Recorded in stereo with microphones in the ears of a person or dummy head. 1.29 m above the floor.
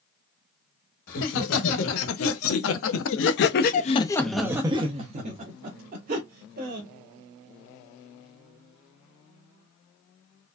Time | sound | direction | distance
1.1 | laughter | 70° left (ahead or behind) | 1.9 m